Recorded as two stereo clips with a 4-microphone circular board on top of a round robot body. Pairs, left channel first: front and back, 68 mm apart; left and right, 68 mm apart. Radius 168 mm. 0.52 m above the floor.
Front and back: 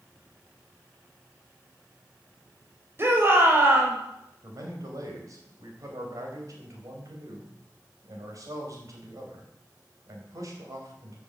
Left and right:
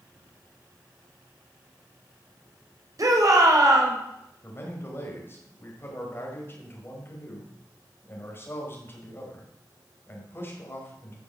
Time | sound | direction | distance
3.0 | a shout | 125° right | 4 m
4.4 | a man speaking | 145° left | 4.5 m